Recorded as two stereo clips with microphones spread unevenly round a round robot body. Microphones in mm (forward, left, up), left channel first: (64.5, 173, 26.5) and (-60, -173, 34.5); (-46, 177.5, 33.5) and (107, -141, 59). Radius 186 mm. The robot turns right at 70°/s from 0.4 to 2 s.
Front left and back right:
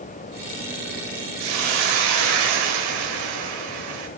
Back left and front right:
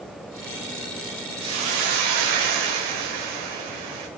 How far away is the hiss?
About 2.5 m.